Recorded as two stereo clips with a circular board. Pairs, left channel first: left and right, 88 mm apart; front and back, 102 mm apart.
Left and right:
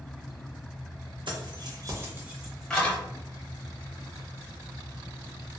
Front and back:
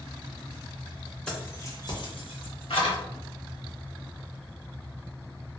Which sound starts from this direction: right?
Keys jangling, at 1.3 s.